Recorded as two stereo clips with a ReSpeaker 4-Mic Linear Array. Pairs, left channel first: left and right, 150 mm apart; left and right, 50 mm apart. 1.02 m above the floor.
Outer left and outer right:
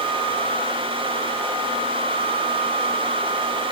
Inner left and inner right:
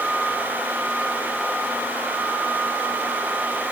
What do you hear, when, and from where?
Only background noise.